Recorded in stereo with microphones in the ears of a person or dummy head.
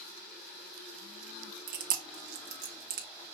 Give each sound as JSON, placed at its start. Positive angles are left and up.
{"t": 1.7, "sound": "chewing", "side_deg": -50, "distance_m": 1.1}